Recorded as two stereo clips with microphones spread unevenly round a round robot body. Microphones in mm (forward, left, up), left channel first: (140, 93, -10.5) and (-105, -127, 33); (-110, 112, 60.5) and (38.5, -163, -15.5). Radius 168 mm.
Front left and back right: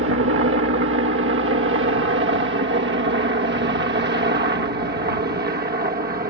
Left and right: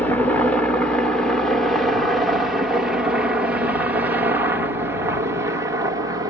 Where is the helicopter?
135° right; by 6.3 s 95° right.